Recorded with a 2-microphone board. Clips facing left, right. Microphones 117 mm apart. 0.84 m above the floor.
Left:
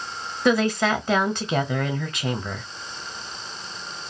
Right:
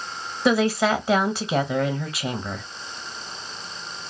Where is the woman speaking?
5° right (ahead or behind), 0.9 m.